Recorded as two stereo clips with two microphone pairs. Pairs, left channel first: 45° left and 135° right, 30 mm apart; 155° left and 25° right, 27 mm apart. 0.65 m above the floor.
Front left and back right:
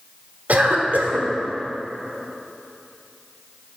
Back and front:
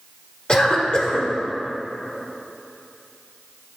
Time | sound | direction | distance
0.5 | a cough | 155° right | 1.4 m